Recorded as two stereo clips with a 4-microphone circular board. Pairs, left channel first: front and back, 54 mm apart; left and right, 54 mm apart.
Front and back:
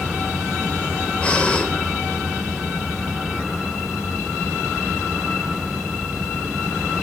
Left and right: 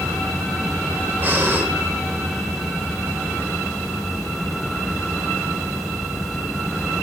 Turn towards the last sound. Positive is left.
turn(degrees=-60)